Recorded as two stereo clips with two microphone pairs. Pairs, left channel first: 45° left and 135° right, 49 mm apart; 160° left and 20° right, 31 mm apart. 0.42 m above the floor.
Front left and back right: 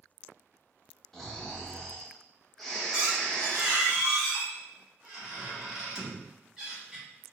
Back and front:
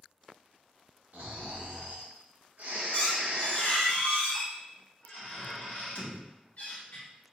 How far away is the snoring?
About 0.8 m.